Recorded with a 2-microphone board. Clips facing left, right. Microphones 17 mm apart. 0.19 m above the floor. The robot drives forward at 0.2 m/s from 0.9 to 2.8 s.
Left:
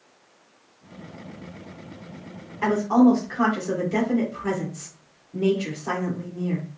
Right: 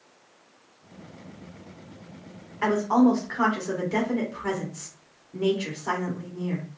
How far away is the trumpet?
No trumpet in this recording.